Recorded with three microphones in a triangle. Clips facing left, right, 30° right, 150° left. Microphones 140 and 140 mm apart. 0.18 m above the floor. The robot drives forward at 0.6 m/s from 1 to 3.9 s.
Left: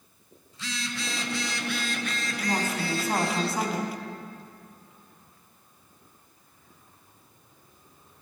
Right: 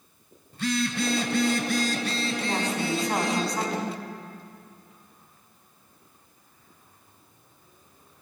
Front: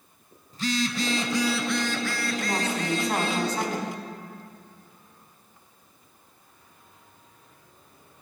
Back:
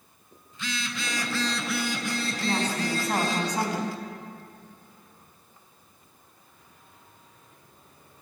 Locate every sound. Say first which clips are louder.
0.5 s a phone buzzing: right 10 dB, front 8 dB; 75° right, 0.5 m; by 3.4 s 160° right, 1.4 m
2.4 s a woman speaking: left 2 dB, back 2 dB; 10° left, 1.1 m; by 4.0 s 170° left, 1.2 m